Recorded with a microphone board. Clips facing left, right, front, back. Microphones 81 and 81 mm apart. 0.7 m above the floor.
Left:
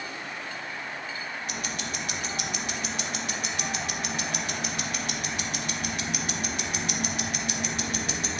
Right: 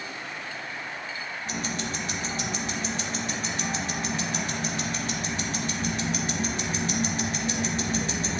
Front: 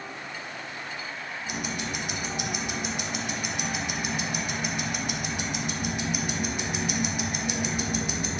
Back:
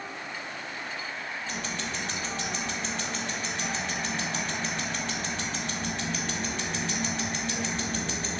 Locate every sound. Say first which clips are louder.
1.5 s ticking: right 3 dB, front 4 dB; 65° right, 0.6 m